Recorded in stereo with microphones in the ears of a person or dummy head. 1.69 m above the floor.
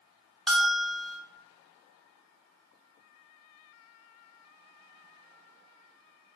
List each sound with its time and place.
0.5 s a bell: 5° right (ahead or behind), 0.5 m